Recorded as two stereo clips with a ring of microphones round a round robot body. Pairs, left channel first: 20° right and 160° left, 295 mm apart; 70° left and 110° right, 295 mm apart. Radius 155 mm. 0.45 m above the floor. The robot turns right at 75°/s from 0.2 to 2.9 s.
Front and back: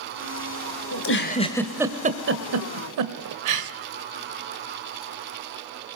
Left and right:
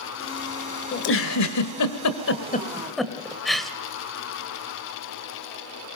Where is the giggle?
10° left, 1.7 m; by 3.7 s 155° left, 1.7 m.